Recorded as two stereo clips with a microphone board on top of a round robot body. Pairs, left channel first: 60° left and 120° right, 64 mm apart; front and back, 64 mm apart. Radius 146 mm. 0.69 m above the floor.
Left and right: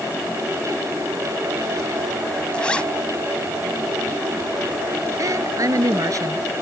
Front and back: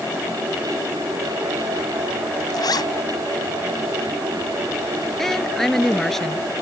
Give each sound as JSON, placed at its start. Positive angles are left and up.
{"t": 2.5, "sound": "a zipper", "azimuth_deg": -15}
{"t": 5.2, "sound": "a woman speaking", "azimuth_deg": -85}